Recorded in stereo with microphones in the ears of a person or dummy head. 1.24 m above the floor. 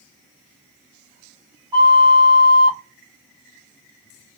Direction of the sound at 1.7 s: 30° right (ahead or behind).